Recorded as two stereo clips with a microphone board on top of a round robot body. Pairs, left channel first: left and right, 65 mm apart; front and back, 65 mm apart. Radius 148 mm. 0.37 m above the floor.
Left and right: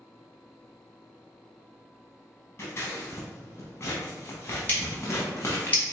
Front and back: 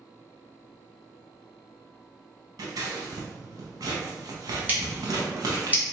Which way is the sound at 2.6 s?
145° left.